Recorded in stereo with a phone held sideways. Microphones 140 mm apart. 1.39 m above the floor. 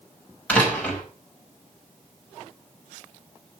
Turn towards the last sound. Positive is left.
turn(degrees=10)  # may be behind; listen again after turning